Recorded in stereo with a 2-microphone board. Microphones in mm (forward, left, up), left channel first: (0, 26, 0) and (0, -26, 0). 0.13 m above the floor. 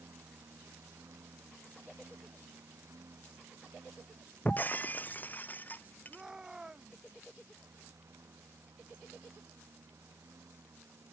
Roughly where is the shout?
Centre.